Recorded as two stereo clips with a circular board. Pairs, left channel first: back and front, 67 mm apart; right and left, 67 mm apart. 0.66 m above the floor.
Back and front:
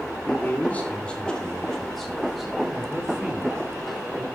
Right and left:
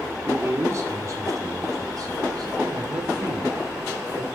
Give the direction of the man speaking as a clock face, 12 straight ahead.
8 o'clock.